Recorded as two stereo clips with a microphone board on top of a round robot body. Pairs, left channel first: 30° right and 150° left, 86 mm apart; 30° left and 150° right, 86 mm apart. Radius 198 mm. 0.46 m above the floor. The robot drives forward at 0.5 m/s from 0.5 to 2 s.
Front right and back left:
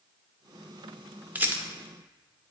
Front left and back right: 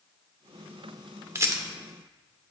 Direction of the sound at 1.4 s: 160° right.